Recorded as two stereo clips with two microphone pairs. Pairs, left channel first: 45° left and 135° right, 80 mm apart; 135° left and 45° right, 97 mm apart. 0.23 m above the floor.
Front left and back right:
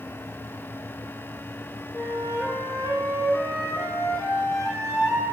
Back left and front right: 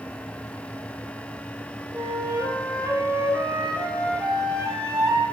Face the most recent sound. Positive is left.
turn(degrees=10)